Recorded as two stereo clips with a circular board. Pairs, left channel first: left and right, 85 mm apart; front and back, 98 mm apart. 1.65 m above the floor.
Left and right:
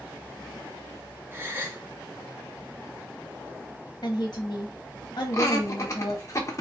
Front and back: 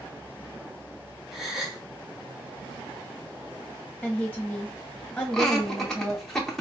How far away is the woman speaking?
About 0.8 m.